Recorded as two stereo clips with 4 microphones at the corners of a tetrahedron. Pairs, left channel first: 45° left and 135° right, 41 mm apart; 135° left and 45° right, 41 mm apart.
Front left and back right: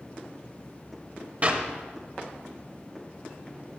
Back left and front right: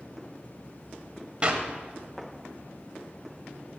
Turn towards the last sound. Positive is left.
turn(degrees=-95)